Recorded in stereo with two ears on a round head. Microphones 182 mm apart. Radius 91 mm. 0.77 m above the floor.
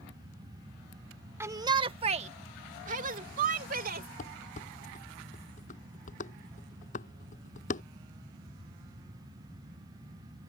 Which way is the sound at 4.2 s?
40° left (ahead or behind).